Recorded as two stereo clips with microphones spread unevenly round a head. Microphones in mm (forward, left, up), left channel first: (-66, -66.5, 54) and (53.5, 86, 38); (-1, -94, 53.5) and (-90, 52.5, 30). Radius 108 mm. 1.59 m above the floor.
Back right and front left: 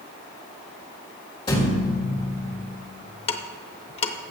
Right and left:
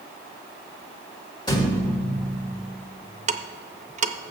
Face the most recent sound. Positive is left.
turn(degrees=170)